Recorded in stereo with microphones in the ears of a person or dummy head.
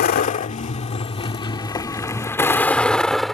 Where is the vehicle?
50° left (ahead or behind); by 3.4 s 5° left (ahead or behind).